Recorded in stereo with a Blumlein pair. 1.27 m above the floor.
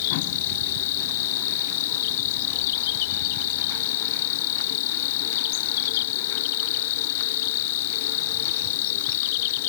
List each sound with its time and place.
0.0 s an insect: 50° left